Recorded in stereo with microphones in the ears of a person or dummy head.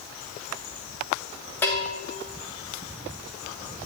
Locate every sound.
1.6 s a bell: 10° left (ahead or behind), 0.9 m